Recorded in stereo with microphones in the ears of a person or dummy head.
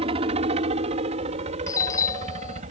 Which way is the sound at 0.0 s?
30° right (ahead or behind).